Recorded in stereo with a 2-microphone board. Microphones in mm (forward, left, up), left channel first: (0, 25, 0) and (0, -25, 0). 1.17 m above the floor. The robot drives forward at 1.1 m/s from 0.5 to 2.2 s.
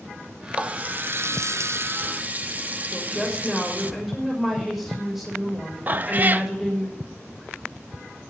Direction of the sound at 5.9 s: 35° right (ahead or behind).